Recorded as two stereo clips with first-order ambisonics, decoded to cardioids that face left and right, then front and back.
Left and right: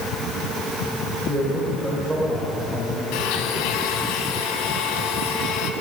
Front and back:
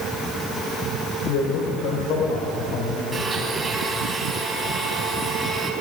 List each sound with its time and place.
1.3 s a man speaking: 10° right, 3 m
3.1 s a blender: 105° left, 3 m